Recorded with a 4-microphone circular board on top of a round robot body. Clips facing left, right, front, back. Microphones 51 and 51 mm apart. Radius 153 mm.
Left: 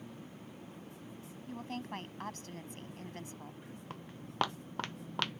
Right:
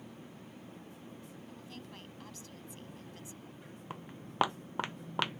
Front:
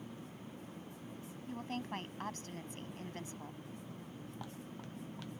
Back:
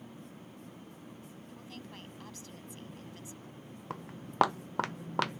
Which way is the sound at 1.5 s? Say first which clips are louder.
Left 12 dB, front 9 dB; 45° left.